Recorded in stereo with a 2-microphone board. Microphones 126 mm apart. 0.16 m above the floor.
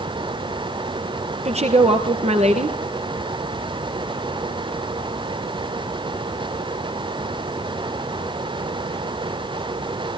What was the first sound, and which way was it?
A woman speaking, 55° right (ahead or behind).